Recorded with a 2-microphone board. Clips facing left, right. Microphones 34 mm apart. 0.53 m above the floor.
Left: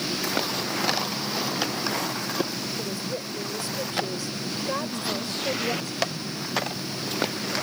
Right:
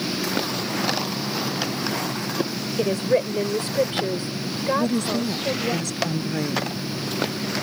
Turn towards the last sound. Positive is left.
turn(degrees=-75)  # may be behind; listen again after turning